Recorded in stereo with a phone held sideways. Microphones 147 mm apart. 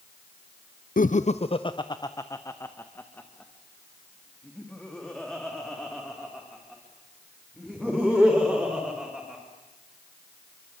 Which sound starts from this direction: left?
Laughter, at 1.0 s.